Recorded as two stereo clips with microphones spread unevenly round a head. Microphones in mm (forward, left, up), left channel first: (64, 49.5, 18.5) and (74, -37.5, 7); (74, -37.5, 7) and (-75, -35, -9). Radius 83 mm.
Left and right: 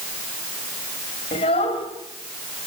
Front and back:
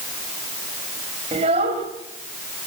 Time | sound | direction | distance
1.3 | a child speaking | 120° left | 3.5 m